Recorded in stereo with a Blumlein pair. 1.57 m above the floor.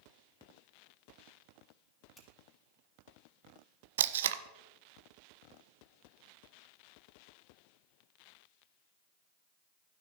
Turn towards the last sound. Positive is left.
turn(degrees=-60)